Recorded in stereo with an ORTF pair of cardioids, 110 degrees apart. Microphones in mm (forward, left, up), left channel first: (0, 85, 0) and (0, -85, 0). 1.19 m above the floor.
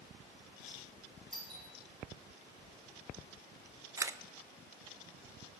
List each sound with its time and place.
1.3 s a doorbell: 5° left, 5.5 m
4.0 s a camera shutter: 20° right, 0.5 m